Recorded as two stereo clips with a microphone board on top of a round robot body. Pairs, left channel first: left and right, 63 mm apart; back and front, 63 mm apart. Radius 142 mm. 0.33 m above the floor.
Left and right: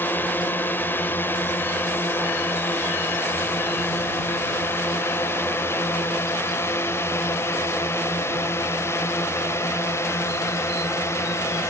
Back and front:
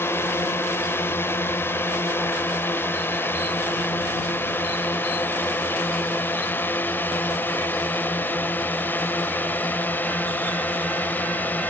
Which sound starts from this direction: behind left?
A drone, at 0.0 s.